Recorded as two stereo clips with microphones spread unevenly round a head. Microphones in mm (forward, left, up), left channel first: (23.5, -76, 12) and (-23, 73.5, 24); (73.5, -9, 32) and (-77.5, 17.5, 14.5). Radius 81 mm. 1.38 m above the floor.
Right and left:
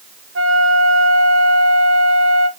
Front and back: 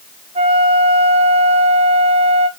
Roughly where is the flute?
Behind left.